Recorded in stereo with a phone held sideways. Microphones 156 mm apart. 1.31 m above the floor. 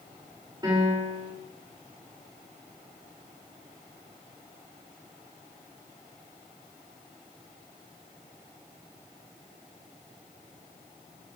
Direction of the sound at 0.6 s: 25° right (ahead or behind).